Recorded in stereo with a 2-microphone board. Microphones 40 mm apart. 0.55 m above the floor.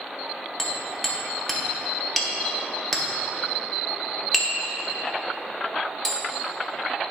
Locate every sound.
0.6 s hammering: 5° left (ahead or behind), 0.8 m